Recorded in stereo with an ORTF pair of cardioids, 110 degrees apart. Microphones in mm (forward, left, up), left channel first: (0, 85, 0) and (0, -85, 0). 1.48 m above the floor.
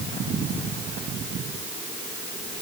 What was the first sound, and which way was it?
Only background noise.